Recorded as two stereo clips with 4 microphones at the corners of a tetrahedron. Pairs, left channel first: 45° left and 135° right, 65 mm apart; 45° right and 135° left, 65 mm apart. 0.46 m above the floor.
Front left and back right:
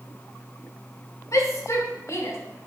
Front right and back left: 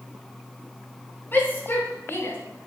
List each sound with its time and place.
1.3 s a shout: 10° left, 5 m; by 2.4 s 5° left, 4 m